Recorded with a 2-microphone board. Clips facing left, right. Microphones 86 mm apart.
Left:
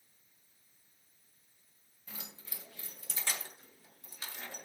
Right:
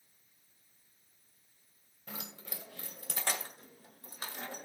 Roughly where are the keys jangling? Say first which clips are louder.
Right 5 dB; right.